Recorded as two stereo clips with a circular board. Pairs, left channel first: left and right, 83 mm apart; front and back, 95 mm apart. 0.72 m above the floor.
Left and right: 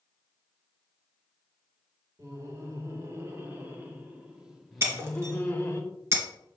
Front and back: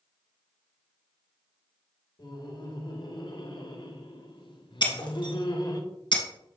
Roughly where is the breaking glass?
Ahead right.